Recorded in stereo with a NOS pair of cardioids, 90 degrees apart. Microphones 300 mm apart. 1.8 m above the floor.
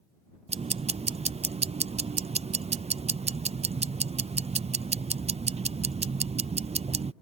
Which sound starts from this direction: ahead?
Ticking, at 0.5 s.